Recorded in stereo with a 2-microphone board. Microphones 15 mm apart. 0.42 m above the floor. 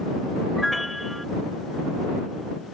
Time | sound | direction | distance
0.6 | a piano | 5° right (ahead or behind) | ?